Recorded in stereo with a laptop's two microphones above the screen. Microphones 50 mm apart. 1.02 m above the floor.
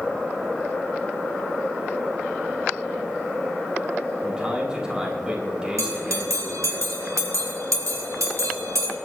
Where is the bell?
80° right, 3 m.